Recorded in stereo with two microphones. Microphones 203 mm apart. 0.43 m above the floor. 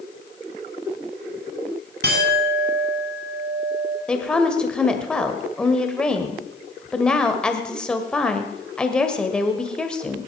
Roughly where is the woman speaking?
Centre.